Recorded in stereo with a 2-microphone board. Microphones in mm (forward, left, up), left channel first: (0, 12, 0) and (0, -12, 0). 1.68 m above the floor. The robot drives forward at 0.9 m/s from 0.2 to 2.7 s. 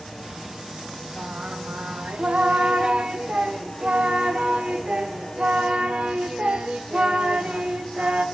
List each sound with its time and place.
1.2 s singing: 60° right (ahead or behind), 1.2 m; by 8.2 s 50° right (ahead or behind), 1.3 m